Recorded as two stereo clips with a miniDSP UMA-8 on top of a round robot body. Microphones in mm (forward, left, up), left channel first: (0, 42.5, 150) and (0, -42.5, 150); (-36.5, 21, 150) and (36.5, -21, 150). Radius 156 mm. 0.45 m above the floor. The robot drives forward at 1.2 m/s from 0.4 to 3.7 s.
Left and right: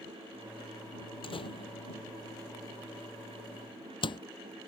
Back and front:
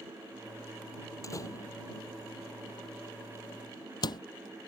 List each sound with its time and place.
1.2 s a door slam: 100° left; by 4.2 s 115° left